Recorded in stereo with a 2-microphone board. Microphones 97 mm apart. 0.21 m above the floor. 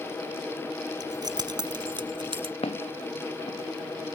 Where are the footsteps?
85° left.